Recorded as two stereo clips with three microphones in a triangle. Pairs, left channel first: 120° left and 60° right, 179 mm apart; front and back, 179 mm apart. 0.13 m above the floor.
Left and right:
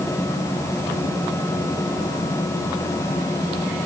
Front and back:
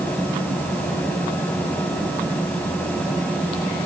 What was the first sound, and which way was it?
Only background noise.